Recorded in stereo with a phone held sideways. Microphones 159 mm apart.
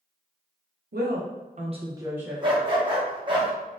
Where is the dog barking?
30° right (ahead or behind), 0.8 m.